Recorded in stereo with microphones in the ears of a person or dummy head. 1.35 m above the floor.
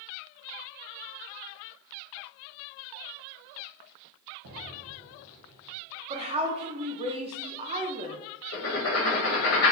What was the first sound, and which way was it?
An explosion, 75° right (ahead or behind).